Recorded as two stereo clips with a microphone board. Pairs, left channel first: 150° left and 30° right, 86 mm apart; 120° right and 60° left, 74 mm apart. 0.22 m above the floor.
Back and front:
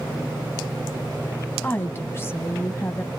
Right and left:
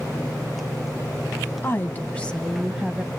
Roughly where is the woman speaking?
Behind right.